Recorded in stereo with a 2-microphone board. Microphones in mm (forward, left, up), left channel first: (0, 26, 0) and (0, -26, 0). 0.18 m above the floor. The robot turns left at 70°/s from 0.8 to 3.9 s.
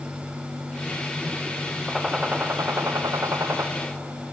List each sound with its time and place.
1.9 s a gunshot: straight ahead, 3 m; by 3.7 s 125° right, 3 m